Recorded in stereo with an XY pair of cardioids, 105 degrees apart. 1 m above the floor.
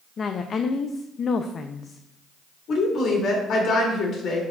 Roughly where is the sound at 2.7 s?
Ahead left.